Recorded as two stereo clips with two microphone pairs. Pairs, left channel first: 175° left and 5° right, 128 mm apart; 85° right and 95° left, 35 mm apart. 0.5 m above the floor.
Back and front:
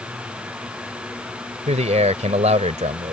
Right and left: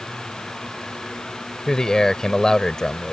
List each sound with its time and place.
1.7 s a man speaking: 10° right